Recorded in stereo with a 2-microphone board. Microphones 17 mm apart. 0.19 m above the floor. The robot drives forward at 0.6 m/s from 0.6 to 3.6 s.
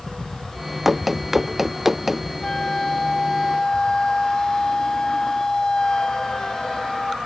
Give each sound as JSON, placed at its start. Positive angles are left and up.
{"t": 0.8, "sound": "running footsteps", "side_deg": -15}
{"t": 2.4, "sound": "a flute", "side_deg": 50}